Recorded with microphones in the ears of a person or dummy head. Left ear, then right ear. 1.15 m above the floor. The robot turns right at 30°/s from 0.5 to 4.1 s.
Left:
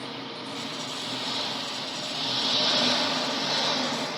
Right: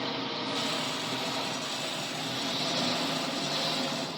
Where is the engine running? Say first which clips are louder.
Right 3 dB; 10° right, 1.1 m; by 4.2 s 100° left, 1.1 m.